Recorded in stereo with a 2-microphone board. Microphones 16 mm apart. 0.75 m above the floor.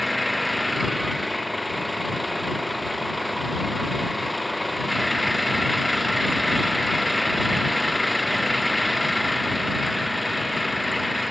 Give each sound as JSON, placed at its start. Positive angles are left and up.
{"t": 0.0, "sound": "an engine running", "side_deg": 0}